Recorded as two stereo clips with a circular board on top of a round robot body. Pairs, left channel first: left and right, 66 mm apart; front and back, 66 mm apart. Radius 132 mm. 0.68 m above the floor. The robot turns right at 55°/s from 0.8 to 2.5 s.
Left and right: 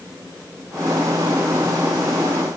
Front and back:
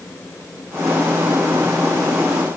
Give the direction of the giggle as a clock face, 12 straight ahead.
No giggle in this recording.